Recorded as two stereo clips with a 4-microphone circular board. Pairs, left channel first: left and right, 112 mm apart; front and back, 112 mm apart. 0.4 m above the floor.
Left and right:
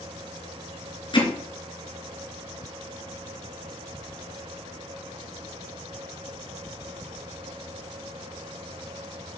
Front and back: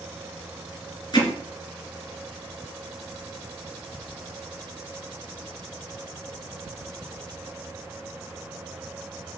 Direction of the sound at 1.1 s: 50° left.